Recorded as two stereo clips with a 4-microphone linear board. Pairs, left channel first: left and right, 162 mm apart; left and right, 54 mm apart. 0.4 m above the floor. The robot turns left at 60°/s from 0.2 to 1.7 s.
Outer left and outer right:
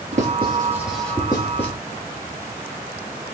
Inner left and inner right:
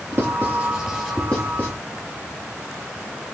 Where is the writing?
45° right (ahead or behind), 5 m; by 1.7 s 45° left (ahead or behind), 5 m.